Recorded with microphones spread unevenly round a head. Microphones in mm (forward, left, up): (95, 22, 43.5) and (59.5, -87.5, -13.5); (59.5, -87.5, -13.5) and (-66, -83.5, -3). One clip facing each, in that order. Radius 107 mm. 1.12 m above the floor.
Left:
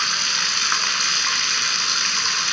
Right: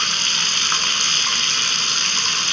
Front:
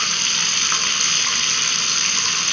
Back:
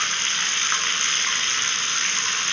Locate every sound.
0.0 s running water: 15° left, 1.1 m